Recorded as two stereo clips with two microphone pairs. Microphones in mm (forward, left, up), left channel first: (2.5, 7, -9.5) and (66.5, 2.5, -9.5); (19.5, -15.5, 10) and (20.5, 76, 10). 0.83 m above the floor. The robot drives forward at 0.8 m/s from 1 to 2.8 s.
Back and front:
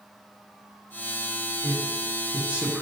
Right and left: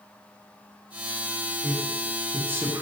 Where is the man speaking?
15° left, 1.2 m; by 2.8 s 65° left, 0.6 m.